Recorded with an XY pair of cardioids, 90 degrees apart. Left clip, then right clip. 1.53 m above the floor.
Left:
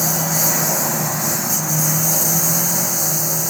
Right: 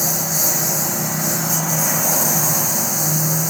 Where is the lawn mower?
Straight ahead; by 3.5 s 5° left.